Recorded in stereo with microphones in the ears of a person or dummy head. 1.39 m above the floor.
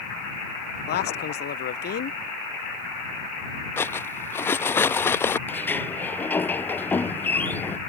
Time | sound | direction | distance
0.9 | a man speaking | 50° left (ahead or behind) | ?
3.8 | cutlery clinking | 10° left (ahead or behind) | ?
5.5 | a sliding door | 10° left (ahead or behind) | ?